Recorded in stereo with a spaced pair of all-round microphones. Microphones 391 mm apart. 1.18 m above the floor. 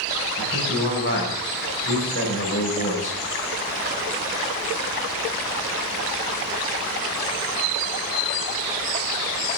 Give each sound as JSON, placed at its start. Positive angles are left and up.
{"t": 0.4, "sound": "a man speaking", "side_deg": 35, "distance_m": 5.5}